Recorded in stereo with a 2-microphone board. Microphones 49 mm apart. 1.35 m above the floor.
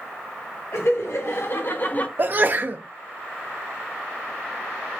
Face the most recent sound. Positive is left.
turn(degrees=-40)  # may be behind; listen again after turning